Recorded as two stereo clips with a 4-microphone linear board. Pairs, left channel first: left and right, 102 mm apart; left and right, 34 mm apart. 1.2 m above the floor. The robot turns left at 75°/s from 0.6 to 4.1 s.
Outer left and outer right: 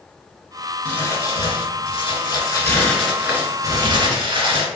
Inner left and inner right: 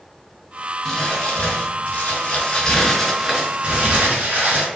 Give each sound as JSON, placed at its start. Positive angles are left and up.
{"t": 0.8, "sound": "crumpling", "azimuth_deg": 165, "distance_m": 1.6}